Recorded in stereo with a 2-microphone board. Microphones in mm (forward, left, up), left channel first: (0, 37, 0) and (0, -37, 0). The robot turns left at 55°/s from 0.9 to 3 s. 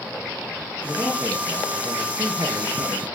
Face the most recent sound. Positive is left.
turn(degrees=-135)